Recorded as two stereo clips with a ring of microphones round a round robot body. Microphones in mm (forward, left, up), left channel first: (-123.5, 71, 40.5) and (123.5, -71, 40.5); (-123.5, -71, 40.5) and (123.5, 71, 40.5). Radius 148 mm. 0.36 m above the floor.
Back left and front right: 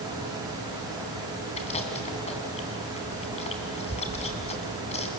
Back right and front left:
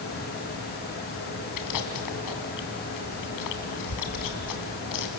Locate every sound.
1.6 s chewing: 140° right, 2.5 m